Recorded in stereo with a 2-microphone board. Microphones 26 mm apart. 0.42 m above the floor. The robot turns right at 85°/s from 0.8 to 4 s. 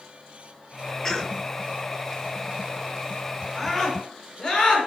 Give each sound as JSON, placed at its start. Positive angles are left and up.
{"t": 1.0, "sound": "a cough", "side_deg": 20, "distance_m": 1.0}
{"t": 3.5, "sound": "a scream", "side_deg": -20, "distance_m": 4.5}